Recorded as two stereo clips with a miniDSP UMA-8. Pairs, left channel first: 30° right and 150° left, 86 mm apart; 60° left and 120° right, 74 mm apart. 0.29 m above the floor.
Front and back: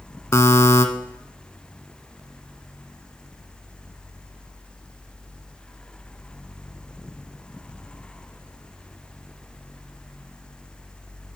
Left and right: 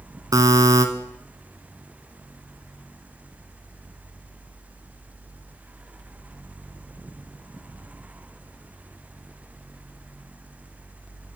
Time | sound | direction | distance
0.3 | a buzzer | 85° right | 0.9 m